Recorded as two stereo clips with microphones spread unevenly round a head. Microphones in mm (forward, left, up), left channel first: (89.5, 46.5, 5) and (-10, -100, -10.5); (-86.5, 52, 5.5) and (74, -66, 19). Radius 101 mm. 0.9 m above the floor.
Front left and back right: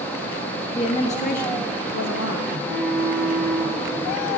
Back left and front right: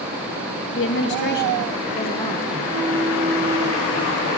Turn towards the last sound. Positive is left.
turn(degrees=-130)